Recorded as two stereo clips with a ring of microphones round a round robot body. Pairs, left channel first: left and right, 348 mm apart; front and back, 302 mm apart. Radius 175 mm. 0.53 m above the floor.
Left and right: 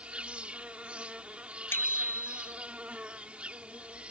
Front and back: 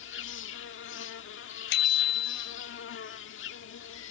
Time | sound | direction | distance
0.0 | an insect | 5° right | ?
1.7 | a bicycle bell | 5° left | ?